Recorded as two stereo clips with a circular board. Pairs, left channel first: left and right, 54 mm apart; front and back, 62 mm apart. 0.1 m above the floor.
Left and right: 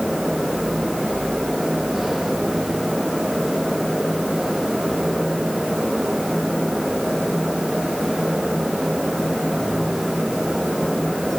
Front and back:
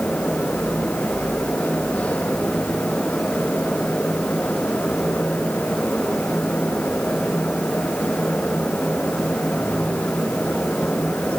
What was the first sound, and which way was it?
Only background noise.